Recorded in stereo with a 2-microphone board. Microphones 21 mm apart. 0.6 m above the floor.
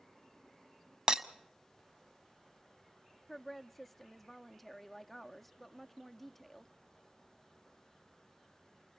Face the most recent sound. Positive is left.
turn(degrees=10)  # may be behind; listen again after turning